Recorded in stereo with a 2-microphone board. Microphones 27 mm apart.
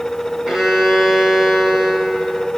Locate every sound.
0.5 s a violin: 30° right (ahead or behind), 1.5 m